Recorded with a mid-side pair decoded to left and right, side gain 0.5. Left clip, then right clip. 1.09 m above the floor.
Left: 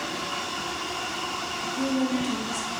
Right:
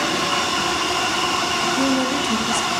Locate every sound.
1.6 s a woman speaking: 50° right, 0.9 m